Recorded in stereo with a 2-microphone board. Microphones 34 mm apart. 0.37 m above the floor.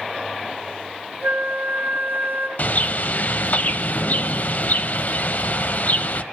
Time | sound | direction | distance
1.2 | a flute | 75° right (ahead or behind) | 2.5 m
2.6 | a bird | 50° left (ahead or behind) | 0.5 m